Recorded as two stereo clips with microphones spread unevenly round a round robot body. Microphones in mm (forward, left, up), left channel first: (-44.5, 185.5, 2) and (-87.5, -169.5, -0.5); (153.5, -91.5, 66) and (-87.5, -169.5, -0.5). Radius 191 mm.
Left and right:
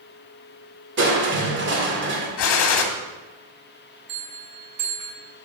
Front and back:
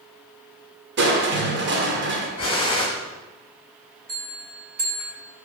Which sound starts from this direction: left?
A gunshot, at 2.4 s.